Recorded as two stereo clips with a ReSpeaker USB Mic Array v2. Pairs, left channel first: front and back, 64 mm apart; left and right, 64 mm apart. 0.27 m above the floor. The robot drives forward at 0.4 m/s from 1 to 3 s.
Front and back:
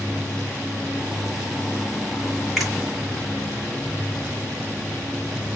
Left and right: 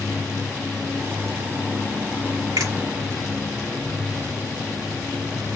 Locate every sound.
2.6 s a finger snap: 85° right, 6 m